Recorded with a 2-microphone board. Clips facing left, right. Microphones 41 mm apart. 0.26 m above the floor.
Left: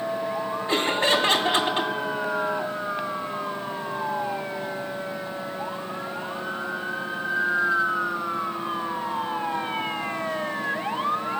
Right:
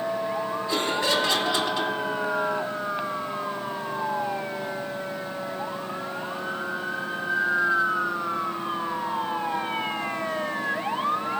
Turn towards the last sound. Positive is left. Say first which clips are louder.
# left 4 dB
turn(degrees=40)  # may be behind; listen again after turning